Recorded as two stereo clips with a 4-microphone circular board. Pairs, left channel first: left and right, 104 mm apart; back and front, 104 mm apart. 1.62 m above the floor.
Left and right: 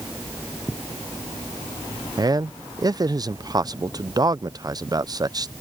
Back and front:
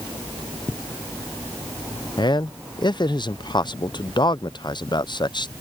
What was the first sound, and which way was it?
A man speaking, 140° right.